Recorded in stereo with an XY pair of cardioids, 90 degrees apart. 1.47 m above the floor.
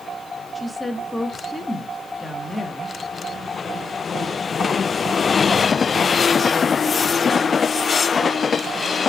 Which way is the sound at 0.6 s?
20° left.